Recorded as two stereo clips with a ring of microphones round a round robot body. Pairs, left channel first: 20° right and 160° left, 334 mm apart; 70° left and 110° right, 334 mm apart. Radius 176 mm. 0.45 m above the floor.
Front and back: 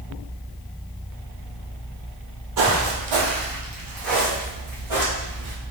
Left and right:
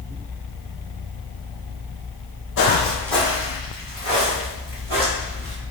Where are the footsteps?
125° left, 1.1 m; by 5.5 s 170° right, 4 m.